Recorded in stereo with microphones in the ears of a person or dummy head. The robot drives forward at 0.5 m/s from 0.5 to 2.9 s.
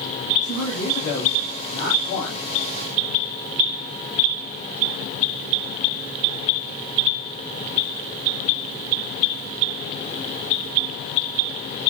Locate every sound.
0.4 s a man speaking: 85° left, 4 m; by 2.5 s 70° left (ahead or behind), 4 m